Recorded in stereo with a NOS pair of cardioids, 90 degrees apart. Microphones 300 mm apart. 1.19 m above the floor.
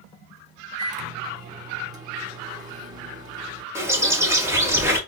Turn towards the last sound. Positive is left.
turn(degrees=-10)